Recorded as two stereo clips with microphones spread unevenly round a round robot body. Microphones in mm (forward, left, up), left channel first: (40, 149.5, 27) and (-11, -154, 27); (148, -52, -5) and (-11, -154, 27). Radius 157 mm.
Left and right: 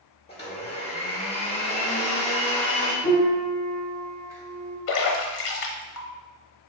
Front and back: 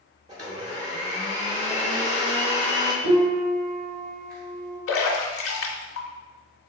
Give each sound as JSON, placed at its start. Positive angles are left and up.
{"t": 0.3, "sound": "a blender", "azimuth_deg": 140, "distance_m": 1.2}
{"t": 3.0, "sound": "a piano", "azimuth_deg": -175, "distance_m": 1.5}
{"t": 4.9, "sound": "a splash", "azimuth_deg": 50, "distance_m": 0.8}